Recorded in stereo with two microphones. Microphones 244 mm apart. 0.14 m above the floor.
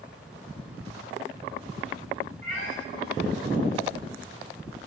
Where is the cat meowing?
50° left (ahead or behind), 4.5 m.